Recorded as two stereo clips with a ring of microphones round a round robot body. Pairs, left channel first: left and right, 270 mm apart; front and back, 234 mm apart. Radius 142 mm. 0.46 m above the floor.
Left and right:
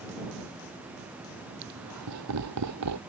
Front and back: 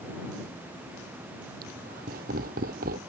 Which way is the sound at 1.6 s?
120° right.